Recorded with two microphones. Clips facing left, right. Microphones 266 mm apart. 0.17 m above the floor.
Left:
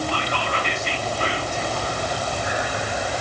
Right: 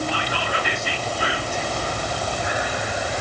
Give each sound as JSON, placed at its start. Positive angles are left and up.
{"t": 0.1, "sound": "whispering", "side_deg": -10, "distance_m": 2.5}